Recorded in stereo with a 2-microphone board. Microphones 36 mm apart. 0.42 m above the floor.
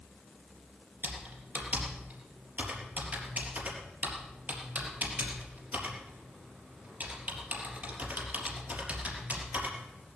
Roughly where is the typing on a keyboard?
Right.